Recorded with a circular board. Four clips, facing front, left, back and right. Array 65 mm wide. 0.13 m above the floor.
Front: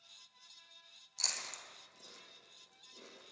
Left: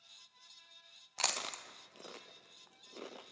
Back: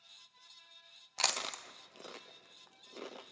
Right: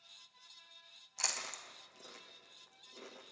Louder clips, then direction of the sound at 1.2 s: Left 4 dB, back 9 dB; 150° left.